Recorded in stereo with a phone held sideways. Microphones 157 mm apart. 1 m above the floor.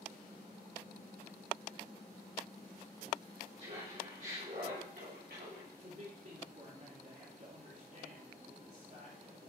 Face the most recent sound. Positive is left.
turn(degrees=-50)  # may be behind; listen again after turning